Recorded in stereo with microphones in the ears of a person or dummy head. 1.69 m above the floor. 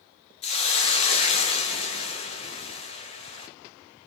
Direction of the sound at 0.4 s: 35° left (ahead or behind).